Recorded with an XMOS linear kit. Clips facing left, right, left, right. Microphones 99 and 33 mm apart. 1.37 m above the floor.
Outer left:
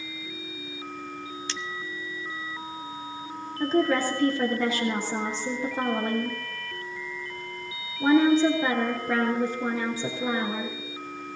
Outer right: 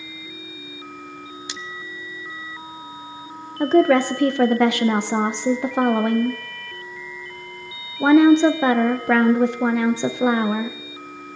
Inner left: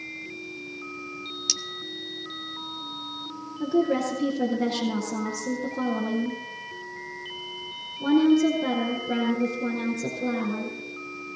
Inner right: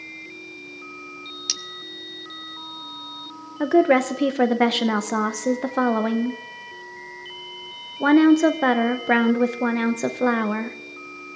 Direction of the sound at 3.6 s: 75° right (ahead or behind).